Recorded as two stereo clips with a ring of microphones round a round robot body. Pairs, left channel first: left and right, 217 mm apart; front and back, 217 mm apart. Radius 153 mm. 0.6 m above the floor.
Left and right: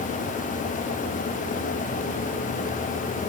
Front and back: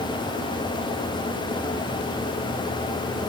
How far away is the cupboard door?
I don't hear a cupboard door.